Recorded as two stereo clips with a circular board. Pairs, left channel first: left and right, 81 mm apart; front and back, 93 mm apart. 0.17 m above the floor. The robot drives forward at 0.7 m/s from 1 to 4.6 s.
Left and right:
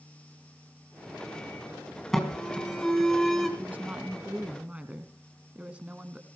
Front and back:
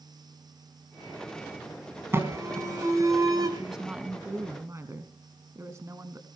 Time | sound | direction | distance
2.1 | an alarm | 170° left | 2.5 m
3.6 | a woman speaking | 95° right | 1.1 m